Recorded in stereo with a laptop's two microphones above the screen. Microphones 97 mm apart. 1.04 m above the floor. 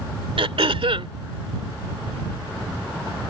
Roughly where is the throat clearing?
Right.